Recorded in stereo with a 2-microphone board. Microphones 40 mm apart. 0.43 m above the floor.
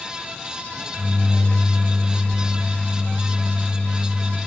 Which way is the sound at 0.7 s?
65° right (ahead or behind).